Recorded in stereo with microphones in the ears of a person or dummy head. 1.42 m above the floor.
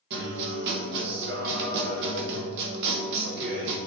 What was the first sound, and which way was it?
A guitar, 55° right (ahead or behind).